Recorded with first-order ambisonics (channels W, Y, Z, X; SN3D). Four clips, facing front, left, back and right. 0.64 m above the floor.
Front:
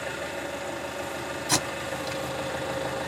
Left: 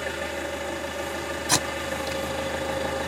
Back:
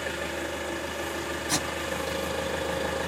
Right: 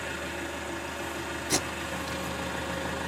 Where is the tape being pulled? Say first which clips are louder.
Left 5 dB, front 3 dB; 75° left, 1.2 m.